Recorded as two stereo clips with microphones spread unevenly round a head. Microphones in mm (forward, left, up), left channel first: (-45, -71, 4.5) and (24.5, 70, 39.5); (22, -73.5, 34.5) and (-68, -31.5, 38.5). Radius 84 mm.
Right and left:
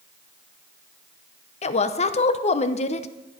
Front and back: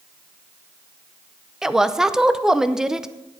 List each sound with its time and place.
1.6 s a woman speaking: 120° right, 0.8 m